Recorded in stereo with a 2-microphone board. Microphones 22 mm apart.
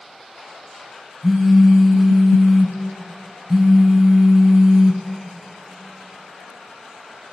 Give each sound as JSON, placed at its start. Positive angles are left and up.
{"t": 1.2, "sound": "a phone buzzing", "side_deg": -25, "distance_m": 0.5}